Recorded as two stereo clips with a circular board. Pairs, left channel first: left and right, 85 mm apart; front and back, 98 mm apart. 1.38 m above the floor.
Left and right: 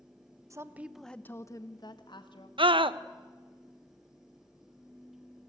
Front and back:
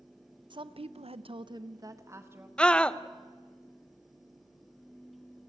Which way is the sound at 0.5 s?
145° right.